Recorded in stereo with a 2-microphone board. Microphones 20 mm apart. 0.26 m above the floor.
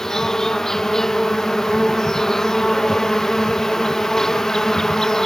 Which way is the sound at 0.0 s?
30° left (ahead or behind).